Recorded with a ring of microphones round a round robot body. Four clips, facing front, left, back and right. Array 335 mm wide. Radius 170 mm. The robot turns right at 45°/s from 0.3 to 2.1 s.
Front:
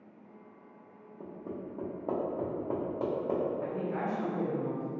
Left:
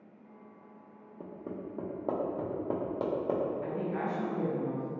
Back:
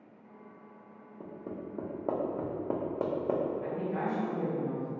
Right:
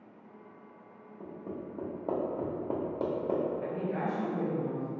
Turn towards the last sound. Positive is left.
turn(degrees=-20)